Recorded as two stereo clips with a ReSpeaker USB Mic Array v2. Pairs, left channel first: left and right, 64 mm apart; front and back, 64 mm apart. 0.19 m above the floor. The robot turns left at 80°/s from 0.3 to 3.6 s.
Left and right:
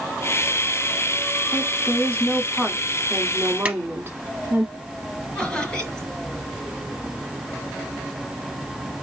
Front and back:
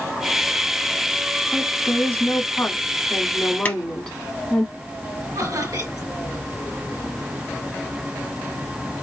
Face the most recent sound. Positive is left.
turn(degrees=170)